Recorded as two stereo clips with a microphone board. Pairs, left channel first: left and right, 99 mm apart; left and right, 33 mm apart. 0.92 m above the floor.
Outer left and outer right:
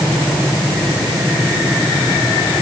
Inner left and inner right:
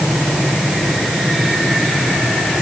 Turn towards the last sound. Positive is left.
No sound to turn to.